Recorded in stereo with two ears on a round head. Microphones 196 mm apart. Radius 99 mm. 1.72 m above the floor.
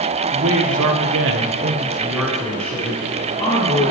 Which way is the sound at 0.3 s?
65° right (ahead or behind).